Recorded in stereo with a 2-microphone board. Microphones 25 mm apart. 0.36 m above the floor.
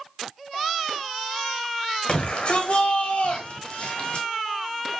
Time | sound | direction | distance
2.1 | a shout | 30° left (ahead or behind) | 1.3 m